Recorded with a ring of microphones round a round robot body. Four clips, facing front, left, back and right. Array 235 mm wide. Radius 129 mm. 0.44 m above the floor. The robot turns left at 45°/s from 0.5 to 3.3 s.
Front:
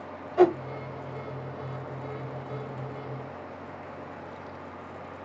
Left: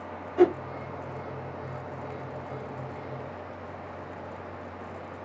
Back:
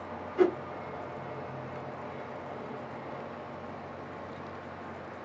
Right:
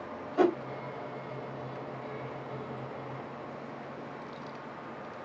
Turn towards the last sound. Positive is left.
turn(degrees=-130)